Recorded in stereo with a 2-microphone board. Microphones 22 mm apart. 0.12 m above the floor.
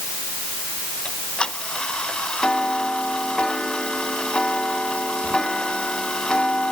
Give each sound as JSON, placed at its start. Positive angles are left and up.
{"t": 1.1, "sound": "ticking", "side_deg": 50}